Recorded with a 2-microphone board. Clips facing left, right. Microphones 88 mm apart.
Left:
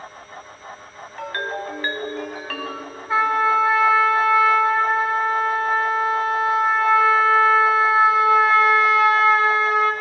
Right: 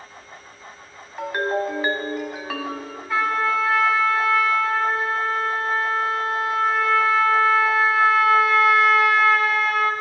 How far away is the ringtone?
About 0.9 m.